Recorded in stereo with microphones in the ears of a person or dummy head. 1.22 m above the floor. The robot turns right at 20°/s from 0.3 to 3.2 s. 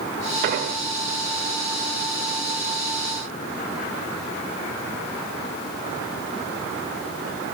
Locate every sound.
0.4 s an explosion: 55° right (ahead or behind), 1.4 m